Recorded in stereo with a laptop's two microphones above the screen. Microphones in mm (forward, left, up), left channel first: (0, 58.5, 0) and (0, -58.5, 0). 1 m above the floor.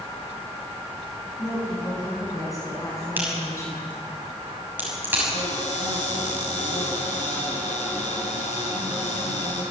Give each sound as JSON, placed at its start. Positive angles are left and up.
{"t": 1.4, "sound": "a woman speaking", "side_deg": 30, "distance_m": 9.0}
{"t": 3.2, "sound": "a crack", "side_deg": -15, "distance_m": 6.0}
{"t": 5.3, "sound": "a cupboard door", "side_deg": 80, "distance_m": 5.5}